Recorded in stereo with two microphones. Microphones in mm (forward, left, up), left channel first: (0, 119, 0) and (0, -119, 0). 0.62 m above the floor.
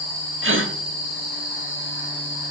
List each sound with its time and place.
0.4 s a gasp: 55° right (ahead or behind), 0.9 m